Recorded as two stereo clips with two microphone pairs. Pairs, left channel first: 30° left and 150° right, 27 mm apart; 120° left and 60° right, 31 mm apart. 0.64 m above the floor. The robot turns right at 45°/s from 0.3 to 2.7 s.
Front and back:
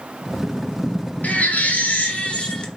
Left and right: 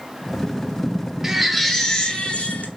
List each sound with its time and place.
1.2 s a baby crying: 15° left, 1.6 m; by 2.7 s 80° left, 1.6 m